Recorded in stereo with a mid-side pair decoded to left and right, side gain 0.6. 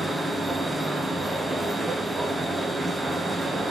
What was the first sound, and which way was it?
A machine running, 15° right.